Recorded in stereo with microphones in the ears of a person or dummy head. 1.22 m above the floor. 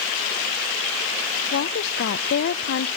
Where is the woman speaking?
55° left (ahead or behind), 0.5 m.